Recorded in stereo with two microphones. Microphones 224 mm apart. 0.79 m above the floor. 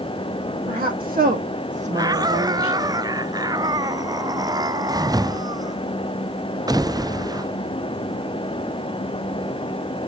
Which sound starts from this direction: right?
A woman speaking, at 0.7 s.